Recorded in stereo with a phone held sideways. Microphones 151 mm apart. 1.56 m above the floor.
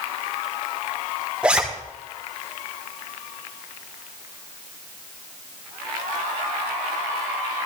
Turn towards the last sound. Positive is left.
turn(degrees=-5)  # may be behind; listen again after turning